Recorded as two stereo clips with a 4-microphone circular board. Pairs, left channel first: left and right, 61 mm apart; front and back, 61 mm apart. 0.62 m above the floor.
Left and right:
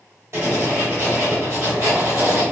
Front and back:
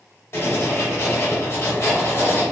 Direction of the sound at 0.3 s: 50° right.